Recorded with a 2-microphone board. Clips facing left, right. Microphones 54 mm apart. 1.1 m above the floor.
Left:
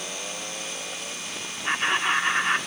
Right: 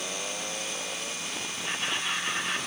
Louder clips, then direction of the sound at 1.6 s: Left 9 dB; 45° left (ahead or behind).